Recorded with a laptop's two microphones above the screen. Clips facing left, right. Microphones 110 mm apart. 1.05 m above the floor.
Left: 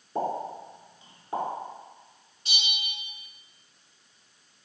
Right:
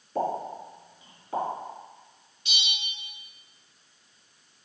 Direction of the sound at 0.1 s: 25° left (ahead or behind).